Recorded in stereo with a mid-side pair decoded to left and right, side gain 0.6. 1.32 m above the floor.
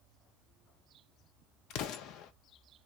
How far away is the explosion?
About 0.6 m.